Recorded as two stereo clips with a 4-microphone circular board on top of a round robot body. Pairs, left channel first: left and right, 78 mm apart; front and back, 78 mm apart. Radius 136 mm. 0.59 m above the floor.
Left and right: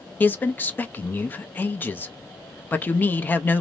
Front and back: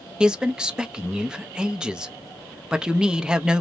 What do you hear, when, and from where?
0.2 s a man speaking: 115° left, 0.6 m